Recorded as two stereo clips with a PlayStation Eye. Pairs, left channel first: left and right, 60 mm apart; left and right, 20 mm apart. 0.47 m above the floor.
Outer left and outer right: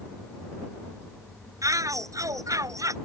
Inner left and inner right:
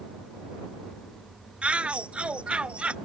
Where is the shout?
75° right (ahead or behind).